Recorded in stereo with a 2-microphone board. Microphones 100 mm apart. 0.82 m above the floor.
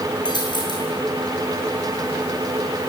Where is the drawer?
I don't hear a drawer.